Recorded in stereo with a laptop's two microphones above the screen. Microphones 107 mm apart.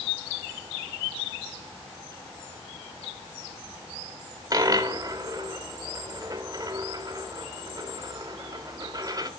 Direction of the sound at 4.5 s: 35° right (ahead or behind).